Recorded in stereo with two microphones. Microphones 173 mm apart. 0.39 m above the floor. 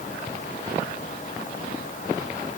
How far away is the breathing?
I don't hear breathing.